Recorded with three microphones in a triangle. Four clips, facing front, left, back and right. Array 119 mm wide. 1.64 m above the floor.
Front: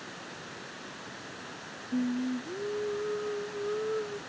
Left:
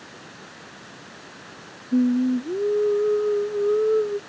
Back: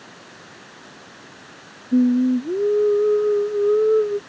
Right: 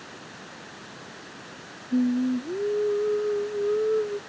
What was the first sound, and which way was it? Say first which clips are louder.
Singing: left 4 dB, back 14 dB; 165° left.